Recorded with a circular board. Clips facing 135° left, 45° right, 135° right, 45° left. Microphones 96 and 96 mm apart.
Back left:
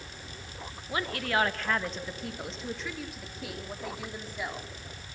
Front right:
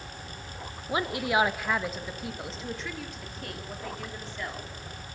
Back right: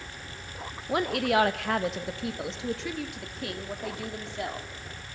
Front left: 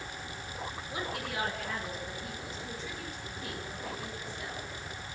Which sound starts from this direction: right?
A woman speaking, at 0.9 s.